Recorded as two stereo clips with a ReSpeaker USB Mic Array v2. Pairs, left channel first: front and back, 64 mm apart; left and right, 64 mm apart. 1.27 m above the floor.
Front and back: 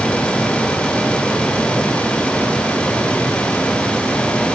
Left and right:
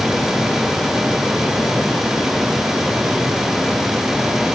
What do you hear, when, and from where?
Only background noise.